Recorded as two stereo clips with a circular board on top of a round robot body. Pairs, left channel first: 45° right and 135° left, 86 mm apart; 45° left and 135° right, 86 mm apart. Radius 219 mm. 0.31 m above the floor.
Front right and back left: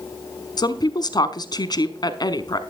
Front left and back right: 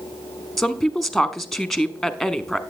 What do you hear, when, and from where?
0.6 s a woman speaking: 45° right, 1.3 m